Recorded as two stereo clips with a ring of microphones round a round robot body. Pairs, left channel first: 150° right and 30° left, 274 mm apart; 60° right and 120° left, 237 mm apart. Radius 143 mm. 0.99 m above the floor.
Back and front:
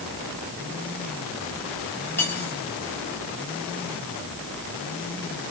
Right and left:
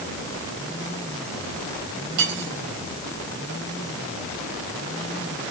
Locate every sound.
2.2 s cutlery clinking: 125° left, 4 m